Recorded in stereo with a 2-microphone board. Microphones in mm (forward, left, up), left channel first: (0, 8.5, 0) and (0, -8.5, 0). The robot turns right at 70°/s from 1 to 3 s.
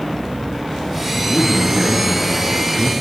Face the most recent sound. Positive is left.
turn(degrees=105)